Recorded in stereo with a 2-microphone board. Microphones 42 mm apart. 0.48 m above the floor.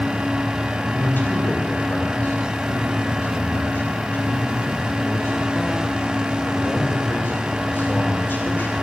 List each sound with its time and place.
0.9 s a man speaking: 50° left (ahead or behind), 2.5 m